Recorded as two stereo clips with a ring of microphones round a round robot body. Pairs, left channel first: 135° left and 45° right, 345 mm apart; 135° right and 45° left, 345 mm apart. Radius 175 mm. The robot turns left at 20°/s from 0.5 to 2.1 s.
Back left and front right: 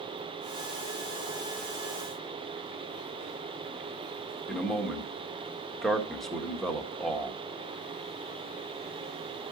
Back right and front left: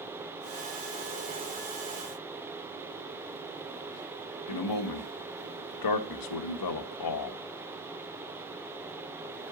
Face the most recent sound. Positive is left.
turn(degrees=-135)